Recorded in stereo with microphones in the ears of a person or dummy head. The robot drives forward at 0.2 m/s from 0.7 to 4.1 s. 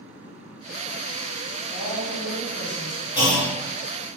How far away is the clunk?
About 1.0 m.